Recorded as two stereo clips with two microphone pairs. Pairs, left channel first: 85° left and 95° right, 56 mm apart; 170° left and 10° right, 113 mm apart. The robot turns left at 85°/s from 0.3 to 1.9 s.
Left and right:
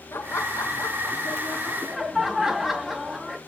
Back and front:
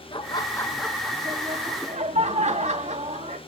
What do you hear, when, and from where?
0.1 s laughter: 125° left, 2 m; by 3.4 s 15° right, 2 m